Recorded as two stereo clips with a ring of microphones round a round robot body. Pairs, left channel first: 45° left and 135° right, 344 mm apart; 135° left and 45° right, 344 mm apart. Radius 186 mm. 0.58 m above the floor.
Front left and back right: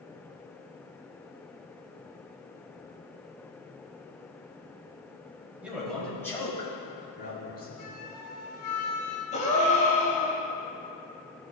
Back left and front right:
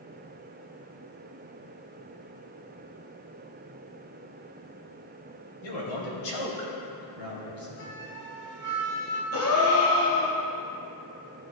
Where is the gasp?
110° left, 1.7 m.